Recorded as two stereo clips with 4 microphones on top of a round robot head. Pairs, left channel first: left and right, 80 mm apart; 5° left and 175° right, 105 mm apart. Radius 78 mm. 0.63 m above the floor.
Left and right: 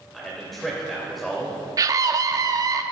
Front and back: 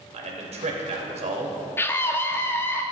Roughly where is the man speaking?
Behind.